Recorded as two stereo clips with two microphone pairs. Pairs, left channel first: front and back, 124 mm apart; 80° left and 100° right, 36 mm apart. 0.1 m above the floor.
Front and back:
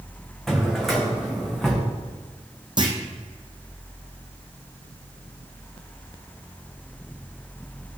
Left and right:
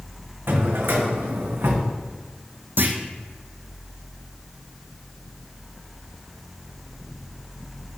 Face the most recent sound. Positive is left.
turn(degrees=-125)